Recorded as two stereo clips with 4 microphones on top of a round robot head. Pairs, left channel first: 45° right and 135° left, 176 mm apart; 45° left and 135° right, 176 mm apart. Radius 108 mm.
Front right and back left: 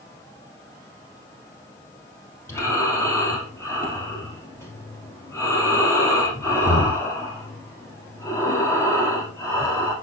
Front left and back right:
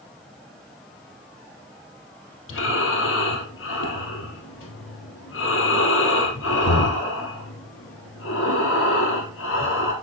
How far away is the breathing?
About 2.5 m.